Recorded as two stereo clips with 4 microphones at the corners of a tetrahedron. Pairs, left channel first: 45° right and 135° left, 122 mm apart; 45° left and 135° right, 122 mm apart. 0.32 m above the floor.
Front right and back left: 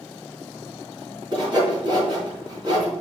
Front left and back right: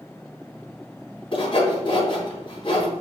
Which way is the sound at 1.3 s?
90° left.